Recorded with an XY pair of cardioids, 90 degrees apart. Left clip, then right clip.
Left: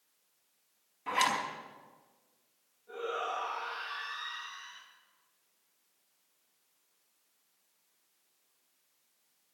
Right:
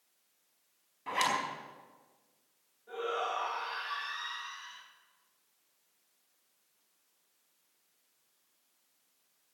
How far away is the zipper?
About 4.5 m.